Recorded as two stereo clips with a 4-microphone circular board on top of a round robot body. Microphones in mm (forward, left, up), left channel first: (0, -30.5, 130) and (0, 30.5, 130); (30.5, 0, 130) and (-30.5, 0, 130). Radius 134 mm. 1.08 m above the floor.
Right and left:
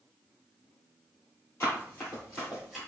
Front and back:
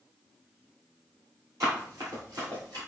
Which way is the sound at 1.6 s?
140° right.